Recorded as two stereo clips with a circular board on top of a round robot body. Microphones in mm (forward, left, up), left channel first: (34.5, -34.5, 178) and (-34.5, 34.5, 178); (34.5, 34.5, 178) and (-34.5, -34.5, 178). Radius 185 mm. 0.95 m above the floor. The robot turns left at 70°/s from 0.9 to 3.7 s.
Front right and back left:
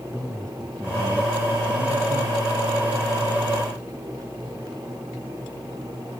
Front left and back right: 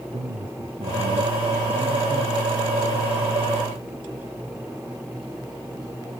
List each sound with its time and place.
0.1 s a man speaking: 125° right; by 2.4 s 135° left